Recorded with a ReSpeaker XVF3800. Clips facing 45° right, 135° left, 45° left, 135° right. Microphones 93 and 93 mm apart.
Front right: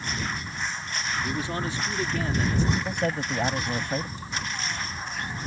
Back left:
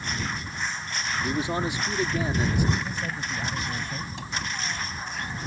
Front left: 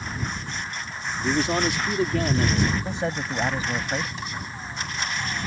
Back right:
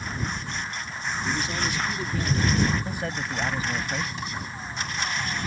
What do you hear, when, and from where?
1.2 s a man speaking: 65° left; by 2.6 s 55° left
2.8 s a man speaking: 20° right
4.2 s a cupboard door: 135° left